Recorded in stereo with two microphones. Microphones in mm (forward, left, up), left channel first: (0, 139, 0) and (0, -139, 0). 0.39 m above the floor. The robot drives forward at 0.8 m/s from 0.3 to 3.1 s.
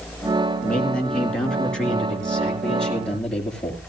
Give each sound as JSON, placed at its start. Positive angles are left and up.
{"t": 0.6, "sound": "a man speaking", "side_deg": 5, "distance_m": 4.0}